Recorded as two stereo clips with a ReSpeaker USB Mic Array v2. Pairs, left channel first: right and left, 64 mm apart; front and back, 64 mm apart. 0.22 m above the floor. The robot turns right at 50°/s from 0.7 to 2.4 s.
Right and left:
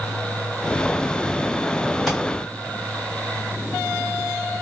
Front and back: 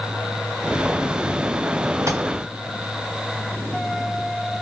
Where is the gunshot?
170° left, 1.8 m; by 2.2 s straight behind, 1.8 m.